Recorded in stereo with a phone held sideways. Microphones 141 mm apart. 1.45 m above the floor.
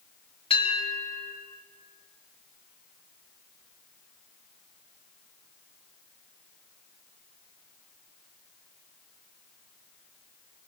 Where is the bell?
40° left (ahead or behind), 4 m.